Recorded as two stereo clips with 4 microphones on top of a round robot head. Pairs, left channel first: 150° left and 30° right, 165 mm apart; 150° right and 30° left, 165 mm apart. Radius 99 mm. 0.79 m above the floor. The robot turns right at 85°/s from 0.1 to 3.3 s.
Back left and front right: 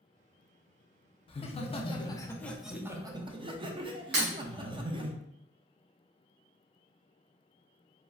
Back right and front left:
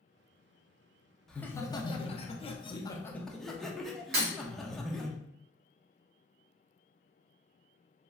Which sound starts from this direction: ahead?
Breaking glass, at 4.1 s.